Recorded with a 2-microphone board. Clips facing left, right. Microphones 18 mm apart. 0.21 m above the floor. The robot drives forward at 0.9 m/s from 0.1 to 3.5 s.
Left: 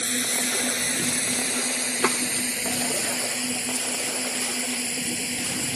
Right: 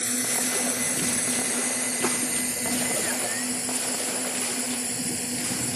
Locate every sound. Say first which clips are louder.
0.0 s a drone: left 2 dB; 60° left (ahead or behind); by 5.8 s 40° left (ahead or behind)
2.0 s tapping: left 5 dB; 50° left (ahead or behind)